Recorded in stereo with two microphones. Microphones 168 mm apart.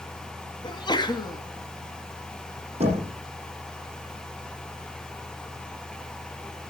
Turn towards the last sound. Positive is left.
turn(degrees=-35)  # may be behind; listen again after turning